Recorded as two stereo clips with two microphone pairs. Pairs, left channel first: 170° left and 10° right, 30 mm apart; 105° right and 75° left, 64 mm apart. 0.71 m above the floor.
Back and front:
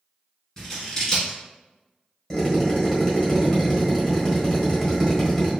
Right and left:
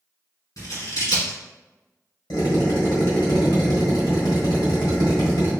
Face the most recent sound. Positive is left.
turn(degrees=-110)